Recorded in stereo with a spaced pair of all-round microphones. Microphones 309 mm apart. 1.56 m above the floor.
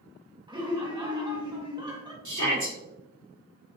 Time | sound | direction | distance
0.5 | laughter | 15° right (ahead or behind) | 1.4 m
2.2 | a shout | 65° right (ahead or behind) | 1.8 m